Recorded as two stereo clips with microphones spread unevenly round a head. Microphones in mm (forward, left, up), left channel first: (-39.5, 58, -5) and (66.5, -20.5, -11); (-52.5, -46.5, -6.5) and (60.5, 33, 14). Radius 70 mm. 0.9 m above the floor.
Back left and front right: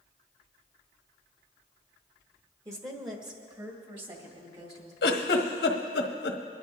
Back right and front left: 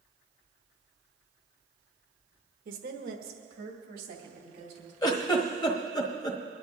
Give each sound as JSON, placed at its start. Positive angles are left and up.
{"t": 2.6, "sound": "a woman speaking", "azimuth_deg": 25, "distance_m": 1.3}
{"t": 5.0, "sound": "a giggle", "azimuth_deg": 155, "distance_m": 1.3}